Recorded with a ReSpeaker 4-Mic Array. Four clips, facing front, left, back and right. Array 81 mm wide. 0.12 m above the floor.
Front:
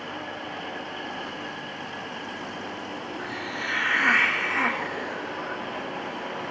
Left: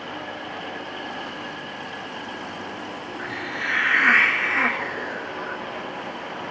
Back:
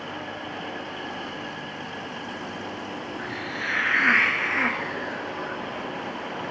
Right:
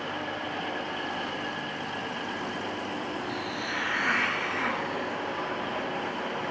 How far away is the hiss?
About 2.5 m.